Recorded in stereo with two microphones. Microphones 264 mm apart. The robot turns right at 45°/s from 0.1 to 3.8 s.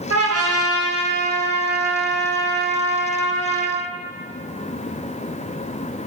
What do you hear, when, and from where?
0.1 s a trumpet: 90° right, 0.5 m; by 3.8 s 75° left, 0.5 m